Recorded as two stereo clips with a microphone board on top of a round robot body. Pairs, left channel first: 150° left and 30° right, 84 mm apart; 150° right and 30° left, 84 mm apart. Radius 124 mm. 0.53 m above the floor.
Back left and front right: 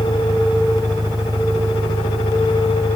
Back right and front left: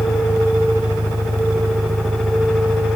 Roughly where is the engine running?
Ahead.